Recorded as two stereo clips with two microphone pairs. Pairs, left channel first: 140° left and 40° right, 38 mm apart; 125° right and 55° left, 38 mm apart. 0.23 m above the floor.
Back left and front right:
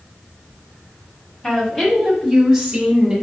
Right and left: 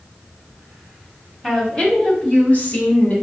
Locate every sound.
1.4 s a woman speaking: 165° left, 1.0 m; by 3.1 s 115° right, 1.3 m